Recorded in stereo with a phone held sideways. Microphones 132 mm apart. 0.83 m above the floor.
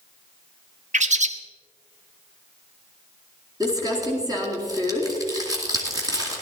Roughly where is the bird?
Right.